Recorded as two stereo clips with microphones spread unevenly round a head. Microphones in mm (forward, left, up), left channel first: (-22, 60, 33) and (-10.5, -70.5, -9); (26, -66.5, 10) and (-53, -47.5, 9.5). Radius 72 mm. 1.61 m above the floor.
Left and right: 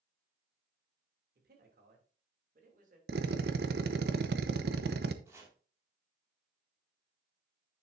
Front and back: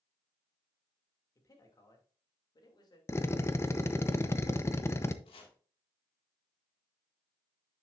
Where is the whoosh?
I don't hear a whoosh.